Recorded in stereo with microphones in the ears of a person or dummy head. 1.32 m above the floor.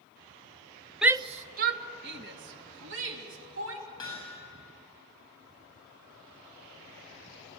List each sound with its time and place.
1.0 s a shout: 5° right (ahead or behind), 0.6 m; by 3.9 s 70° right (ahead or behind), 4 m
4.0 s hammering: 20° left (ahead or behind), 8 m